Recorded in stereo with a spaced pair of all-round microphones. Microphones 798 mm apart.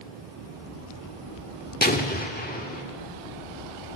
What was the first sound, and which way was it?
An explosion, 10° left (ahead or behind).